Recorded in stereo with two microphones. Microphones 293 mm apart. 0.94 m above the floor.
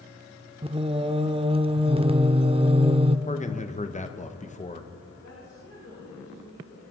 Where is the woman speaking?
75° left (ahead or behind), 6.5 m.